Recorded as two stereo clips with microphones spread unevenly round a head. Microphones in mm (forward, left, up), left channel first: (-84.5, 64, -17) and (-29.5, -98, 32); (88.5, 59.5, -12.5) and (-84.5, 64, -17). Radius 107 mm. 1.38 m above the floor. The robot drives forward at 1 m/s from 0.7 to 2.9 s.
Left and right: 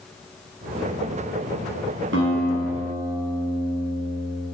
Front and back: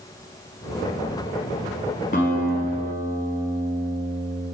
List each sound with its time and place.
2.1 s a guitar: 50° right, 6 m; by 4.5 s 60° right, 5.5 m